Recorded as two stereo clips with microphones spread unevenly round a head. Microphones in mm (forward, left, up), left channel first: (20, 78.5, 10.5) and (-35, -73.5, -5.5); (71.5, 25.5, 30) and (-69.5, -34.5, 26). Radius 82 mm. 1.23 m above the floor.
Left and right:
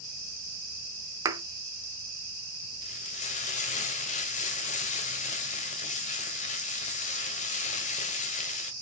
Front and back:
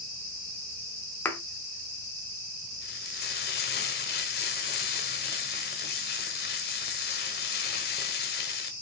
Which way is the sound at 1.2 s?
45° right.